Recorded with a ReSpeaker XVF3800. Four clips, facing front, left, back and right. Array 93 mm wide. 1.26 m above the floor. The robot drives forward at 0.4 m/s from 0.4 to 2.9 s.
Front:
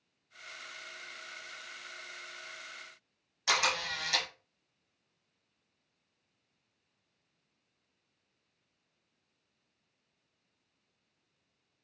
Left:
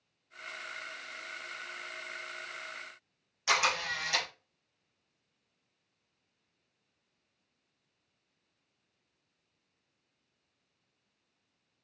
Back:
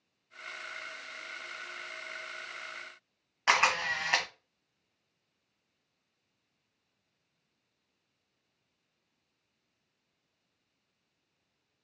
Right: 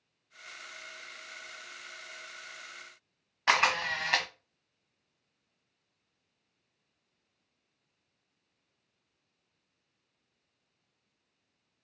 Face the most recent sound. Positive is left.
turn(degrees=-135)